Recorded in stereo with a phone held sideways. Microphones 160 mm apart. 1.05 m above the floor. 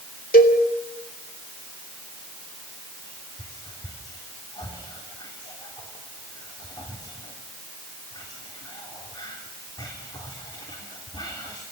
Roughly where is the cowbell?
Left.